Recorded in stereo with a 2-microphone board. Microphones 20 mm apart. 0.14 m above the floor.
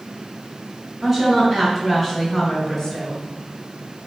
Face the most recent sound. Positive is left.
turn(degrees=25)  # may be behind; listen again after turning